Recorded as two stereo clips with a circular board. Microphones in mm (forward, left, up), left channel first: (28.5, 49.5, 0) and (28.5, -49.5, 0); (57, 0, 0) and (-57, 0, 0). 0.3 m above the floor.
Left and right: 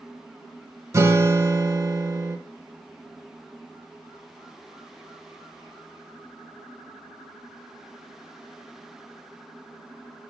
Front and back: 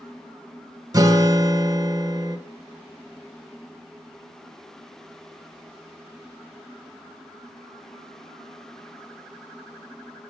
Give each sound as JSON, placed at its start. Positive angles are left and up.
{"t": 0.9, "sound": "a guitar", "azimuth_deg": -135, "distance_m": 0.6}